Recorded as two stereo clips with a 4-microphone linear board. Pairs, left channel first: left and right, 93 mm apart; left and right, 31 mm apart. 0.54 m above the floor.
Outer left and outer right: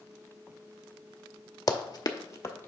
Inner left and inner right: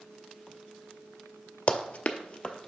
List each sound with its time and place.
1.7 s running footsteps: 40° left (ahead or behind), 0.7 m; by 2.7 s 20° left (ahead or behind), 0.9 m